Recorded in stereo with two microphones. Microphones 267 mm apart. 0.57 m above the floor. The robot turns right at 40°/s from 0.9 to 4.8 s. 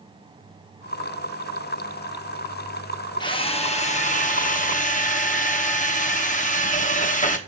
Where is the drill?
15° left (ahead or behind), 1.1 m; by 7.4 s 30° left (ahead or behind), 1.1 m.